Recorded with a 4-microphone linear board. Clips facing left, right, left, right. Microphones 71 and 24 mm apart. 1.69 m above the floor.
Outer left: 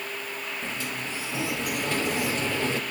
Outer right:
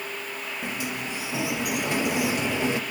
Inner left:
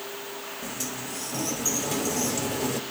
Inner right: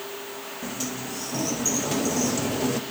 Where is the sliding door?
15° right (ahead or behind), 1.3 m.